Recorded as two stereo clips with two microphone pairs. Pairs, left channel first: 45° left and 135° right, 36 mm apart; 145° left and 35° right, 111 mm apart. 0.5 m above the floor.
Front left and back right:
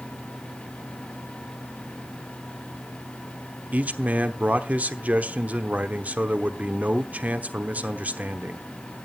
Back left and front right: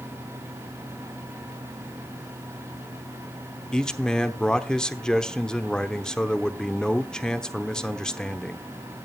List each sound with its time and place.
3.7 s a man speaking: 135° right, 0.9 m